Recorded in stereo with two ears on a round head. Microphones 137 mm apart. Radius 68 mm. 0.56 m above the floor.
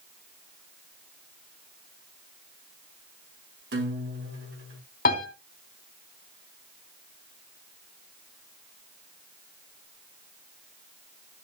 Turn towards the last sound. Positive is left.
turn(degrees=55)  # may be behind; listen again after turning